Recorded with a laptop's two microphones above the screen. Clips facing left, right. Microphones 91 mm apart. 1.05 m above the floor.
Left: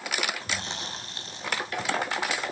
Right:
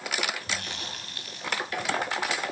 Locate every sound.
0.4 s chewing: 25° left (ahead or behind), 6 m